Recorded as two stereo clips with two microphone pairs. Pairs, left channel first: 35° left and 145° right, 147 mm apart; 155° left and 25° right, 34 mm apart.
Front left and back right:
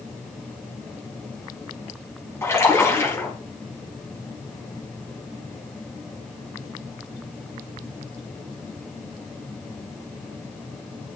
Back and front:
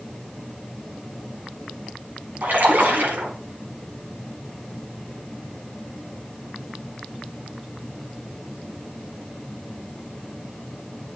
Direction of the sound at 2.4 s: 35° right.